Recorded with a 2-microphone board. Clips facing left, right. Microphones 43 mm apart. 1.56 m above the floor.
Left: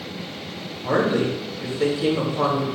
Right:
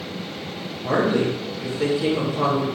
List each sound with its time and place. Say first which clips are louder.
0.8 s a woman speaking: even; centre (ahead or behind), 2.5 m